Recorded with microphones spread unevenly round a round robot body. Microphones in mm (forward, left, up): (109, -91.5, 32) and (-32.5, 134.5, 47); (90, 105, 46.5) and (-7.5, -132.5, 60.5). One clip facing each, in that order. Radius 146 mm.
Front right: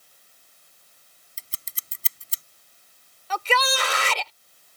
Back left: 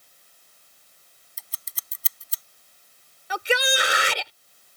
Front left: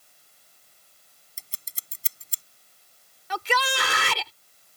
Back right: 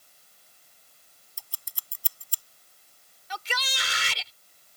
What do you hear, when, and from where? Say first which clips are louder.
1.4 s scissors: front right 4 dB, front left 3 dB; straight ahead
3.3 s a shout: back left 1 dB, front left 10 dB; 45° left